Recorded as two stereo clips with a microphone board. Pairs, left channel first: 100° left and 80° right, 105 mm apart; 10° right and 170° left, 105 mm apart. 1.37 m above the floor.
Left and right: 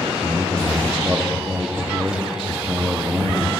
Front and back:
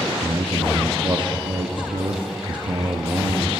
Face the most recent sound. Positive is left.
turn(degrees=-145)